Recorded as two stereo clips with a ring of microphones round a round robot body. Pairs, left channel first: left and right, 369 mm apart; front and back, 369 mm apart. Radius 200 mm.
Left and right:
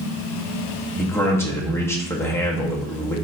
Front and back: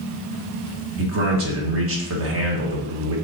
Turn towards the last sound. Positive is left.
turn(degrees=170)